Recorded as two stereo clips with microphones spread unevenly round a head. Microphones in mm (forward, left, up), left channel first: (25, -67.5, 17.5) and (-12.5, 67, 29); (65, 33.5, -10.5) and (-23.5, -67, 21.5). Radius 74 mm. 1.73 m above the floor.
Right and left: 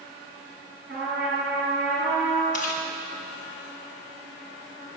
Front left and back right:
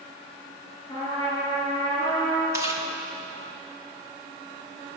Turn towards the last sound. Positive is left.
turn(degrees=-90)